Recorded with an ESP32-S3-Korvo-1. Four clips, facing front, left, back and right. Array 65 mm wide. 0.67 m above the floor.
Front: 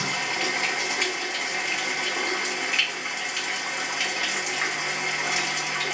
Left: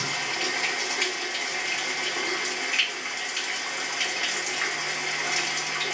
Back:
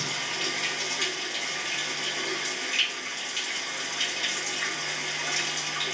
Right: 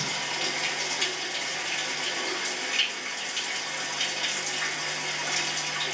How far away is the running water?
About 0.7 m.